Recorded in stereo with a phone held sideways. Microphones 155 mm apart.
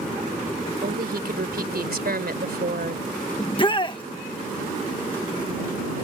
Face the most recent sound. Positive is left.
turn(degrees=30)  # may be behind; listen again after turning